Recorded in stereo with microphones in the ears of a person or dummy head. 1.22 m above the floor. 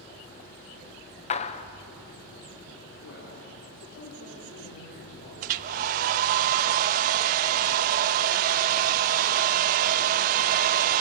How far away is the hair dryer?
About 0.7 m.